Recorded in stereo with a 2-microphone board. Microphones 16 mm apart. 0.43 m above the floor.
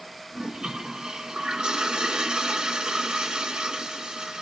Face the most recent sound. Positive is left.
turn(degrees=-80)